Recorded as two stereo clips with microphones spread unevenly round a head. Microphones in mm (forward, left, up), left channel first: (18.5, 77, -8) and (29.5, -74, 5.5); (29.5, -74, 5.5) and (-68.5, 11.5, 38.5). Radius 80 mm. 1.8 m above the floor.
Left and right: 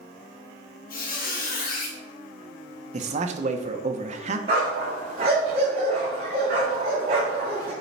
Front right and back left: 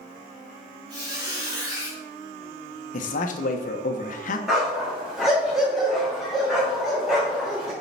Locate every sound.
0.9 s a squeak: 95° left, 2 m
2.9 s a man speaking: 65° right, 1.2 m
4.5 s a dog barking: 135° right, 3.5 m